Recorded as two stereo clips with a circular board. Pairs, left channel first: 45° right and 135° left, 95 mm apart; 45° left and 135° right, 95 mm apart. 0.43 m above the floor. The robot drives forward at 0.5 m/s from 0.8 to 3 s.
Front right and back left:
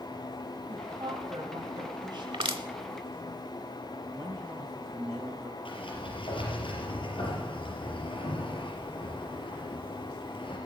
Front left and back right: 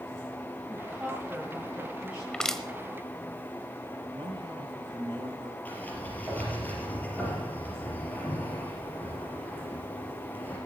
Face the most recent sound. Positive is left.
turn(degrees=-25)